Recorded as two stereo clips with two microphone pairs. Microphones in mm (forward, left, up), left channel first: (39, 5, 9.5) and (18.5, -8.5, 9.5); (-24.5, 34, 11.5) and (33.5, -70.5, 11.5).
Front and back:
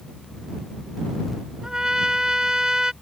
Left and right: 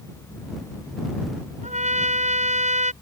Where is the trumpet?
80° right.